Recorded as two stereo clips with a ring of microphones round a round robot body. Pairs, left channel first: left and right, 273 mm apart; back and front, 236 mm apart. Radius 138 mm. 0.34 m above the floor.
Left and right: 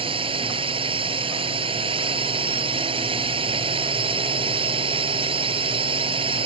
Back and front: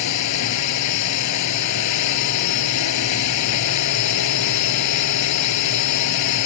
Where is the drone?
160° right.